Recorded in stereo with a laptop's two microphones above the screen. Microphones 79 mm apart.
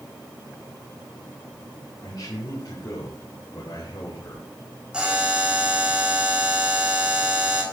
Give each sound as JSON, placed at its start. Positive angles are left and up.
{"t": 2.0, "sound": "a man speaking", "side_deg": 65, "distance_m": 2.5}
{"t": 4.9, "sound": "a buzzer", "side_deg": -15, "distance_m": 1.8}